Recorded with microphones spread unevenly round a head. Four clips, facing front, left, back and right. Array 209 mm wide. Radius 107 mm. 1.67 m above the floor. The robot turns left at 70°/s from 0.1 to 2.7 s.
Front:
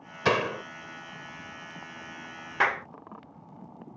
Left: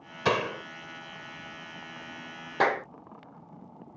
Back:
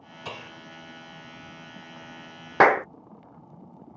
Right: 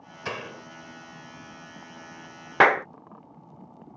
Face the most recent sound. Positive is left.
turn(degrees=-160)